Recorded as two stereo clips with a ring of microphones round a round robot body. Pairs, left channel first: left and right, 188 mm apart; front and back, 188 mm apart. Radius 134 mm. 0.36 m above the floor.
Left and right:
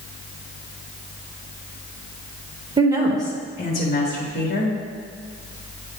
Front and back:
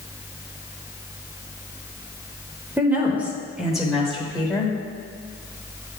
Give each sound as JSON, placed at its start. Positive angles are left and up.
{"t": 2.8, "sound": "a woman speaking", "azimuth_deg": -115, "distance_m": 0.9}